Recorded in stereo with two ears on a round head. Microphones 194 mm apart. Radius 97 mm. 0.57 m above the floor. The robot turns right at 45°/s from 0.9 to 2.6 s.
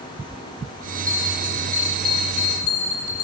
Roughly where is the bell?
Ahead.